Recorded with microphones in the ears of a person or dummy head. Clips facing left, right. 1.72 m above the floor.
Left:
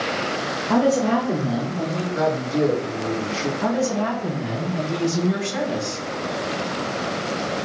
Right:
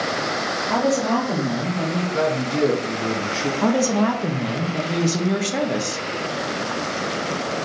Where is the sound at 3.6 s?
60° right (ahead or behind), 0.9 m.